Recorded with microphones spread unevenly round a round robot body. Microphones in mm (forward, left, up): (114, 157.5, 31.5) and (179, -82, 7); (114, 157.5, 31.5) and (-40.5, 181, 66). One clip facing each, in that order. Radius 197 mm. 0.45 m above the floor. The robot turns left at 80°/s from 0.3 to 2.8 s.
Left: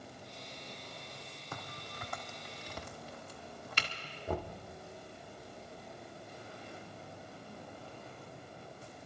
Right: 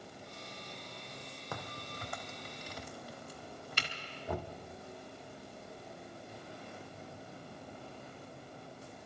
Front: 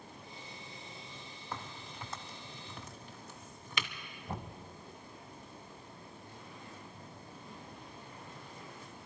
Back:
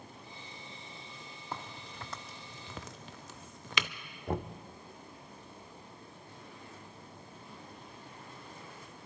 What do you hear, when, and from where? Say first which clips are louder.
1.5 s a crack: right 3 dB, back 1 dB; 105° right, 0.8 m; by 3.9 s 155° left, 0.8 m
4.3 s knocking: left 2 dB, back 8 dB; 165° left, 0.7 m